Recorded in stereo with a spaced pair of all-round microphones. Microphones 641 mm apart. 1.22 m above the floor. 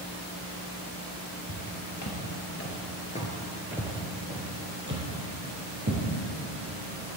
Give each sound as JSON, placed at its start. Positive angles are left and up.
{"t": 1.5, "sound": "footsteps", "side_deg": 30, "distance_m": 2.0}